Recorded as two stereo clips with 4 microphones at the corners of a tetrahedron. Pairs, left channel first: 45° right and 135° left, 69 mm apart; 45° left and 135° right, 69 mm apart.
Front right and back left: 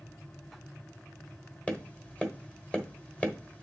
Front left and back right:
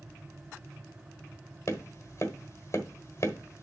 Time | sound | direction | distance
1.7 | tapping | 15° left | 1.2 m